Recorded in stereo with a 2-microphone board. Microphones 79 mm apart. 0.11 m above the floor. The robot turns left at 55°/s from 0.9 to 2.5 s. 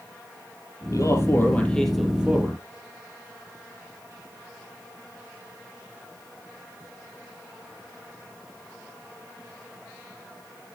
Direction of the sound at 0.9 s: 60° left.